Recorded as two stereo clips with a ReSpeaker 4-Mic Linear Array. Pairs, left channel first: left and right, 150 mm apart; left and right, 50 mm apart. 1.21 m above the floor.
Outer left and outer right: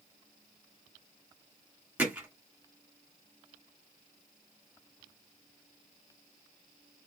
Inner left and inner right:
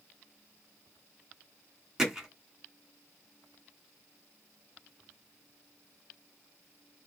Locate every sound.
2.0 s hammering: 10° right (ahead or behind), 2 m